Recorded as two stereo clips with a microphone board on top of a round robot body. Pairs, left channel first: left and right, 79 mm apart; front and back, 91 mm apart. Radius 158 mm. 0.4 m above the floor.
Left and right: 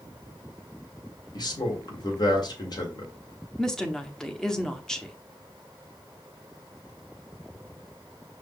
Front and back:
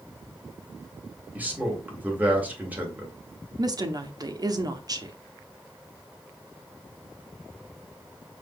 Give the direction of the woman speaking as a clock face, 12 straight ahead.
6 o'clock.